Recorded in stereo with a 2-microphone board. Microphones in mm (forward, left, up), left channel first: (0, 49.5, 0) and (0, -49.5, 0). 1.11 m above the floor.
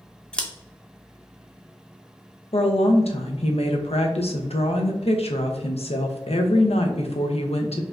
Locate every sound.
0.3 s scissors: 10° left (ahead or behind), 0.6 m
2.5 s a woman speaking: 90° left, 0.7 m